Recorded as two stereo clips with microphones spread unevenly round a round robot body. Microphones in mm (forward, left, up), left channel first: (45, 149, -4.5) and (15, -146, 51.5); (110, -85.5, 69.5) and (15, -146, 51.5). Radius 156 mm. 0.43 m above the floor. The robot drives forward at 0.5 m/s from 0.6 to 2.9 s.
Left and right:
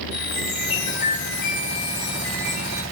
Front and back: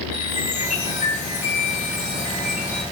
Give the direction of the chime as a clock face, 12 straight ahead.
9 o'clock.